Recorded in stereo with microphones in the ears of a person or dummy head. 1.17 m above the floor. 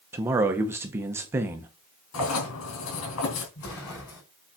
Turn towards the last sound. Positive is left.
turn(degrees=85)